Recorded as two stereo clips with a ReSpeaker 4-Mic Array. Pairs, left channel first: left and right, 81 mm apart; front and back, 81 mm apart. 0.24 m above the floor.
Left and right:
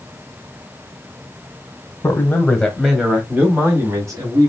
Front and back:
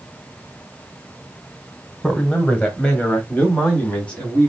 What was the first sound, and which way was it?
A man speaking, 75° left.